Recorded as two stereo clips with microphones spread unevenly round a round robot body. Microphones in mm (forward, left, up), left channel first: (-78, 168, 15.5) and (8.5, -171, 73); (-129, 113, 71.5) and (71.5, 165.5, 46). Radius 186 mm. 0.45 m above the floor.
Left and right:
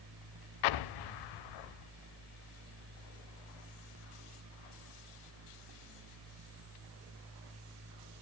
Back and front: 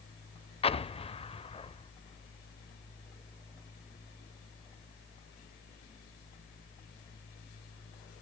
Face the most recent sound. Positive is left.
turn(degrees=125)